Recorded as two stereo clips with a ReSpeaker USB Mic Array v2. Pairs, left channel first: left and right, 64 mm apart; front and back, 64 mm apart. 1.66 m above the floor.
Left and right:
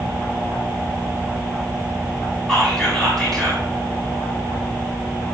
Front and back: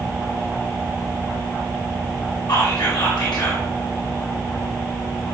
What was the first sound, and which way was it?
Whispering, 5° left.